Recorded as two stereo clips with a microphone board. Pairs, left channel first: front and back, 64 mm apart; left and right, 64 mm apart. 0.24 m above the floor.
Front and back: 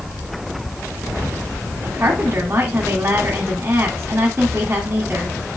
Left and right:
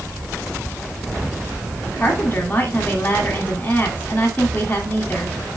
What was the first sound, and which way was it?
A woman speaking, 140° left.